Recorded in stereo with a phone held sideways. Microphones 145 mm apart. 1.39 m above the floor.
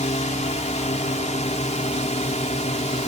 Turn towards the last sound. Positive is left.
turn(degrees=55)  # may be behind; listen again after turning